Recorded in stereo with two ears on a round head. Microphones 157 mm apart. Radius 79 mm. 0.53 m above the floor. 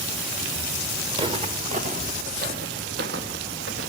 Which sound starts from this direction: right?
Footsteps, at 1.1 s.